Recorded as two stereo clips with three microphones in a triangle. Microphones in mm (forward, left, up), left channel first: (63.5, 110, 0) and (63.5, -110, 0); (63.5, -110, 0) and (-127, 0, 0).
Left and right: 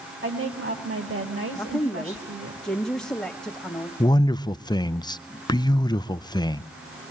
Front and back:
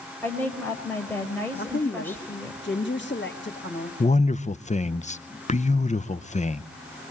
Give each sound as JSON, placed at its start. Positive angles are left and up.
{"t": 0.2, "sound": "a woman speaking", "azimuth_deg": -110, "distance_m": 5.0}
{"t": 1.5, "sound": "a woman speaking", "azimuth_deg": 5, "distance_m": 2.0}
{"t": 4.0, "sound": "a man speaking", "azimuth_deg": 20, "distance_m": 0.6}